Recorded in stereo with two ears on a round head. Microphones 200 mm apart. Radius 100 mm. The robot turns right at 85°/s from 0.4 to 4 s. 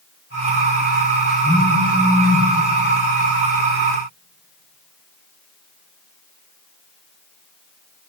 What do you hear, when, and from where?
1.4 s a phone buzzing: straight ahead, 4 m; by 2.5 s 90° left, 4 m